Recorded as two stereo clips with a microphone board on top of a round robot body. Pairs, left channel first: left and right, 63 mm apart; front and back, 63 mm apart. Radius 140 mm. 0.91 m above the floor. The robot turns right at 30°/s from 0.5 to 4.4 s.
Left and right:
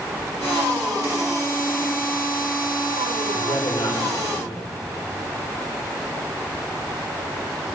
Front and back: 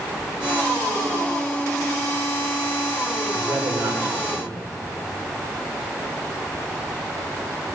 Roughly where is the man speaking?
Left.